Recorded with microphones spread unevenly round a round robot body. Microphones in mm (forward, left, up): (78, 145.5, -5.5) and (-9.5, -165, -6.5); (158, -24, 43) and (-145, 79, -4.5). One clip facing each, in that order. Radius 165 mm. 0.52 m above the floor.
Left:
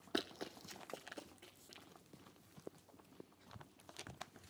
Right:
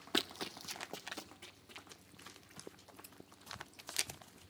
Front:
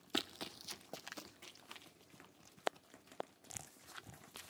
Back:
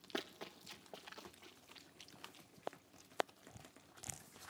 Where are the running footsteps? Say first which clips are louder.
Right 2 dB, front 2 dB; 45° right, 0.6 m; by 1.9 s 35° right, 1.7 m.